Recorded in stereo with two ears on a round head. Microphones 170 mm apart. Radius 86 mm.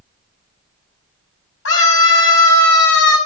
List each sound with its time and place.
1.6 s a scream: 75° left (ahead or behind), 5.5 m